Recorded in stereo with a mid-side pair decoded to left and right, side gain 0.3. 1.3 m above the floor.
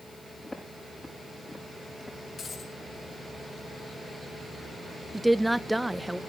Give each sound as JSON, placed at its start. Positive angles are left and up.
{"t": 0.4, "sound": "footsteps", "azimuth_deg": 15, "distance_m": 7.0}
{"t": 2.4, "sound": "a dropped coin", "azimuth_deg": 55, "distance_m": 6.0}
{"t": 5.1, "sound": "a woman speaking", "azimuth_deg": -10, "distance_m": 0.9}